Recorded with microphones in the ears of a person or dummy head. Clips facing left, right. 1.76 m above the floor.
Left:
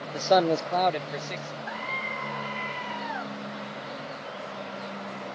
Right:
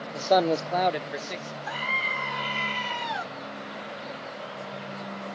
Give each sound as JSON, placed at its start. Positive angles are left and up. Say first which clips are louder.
{"t": 0.1, "sound": "a man speaking", "louder": "even", "side_deg": 15}
{"t": 1.7, "sound": "a scream", "louder": "right 1 dB", "side_deg": -55}